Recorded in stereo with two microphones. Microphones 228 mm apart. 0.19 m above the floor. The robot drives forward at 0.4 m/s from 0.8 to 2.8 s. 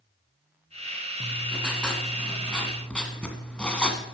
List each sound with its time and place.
1.2 s writing: 5° left (ahead or behind), 1.8 m